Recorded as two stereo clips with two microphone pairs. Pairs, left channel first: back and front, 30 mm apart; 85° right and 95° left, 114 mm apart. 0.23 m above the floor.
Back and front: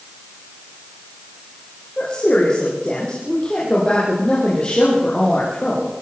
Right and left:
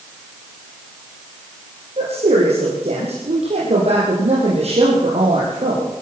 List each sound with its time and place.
2.0 s a woman speaking: 120° left, 8 m